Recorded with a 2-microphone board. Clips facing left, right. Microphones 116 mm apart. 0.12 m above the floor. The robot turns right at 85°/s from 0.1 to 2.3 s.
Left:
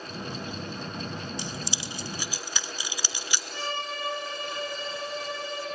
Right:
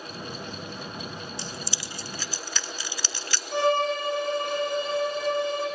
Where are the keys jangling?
15° left (ahead or behind), 0.7 m.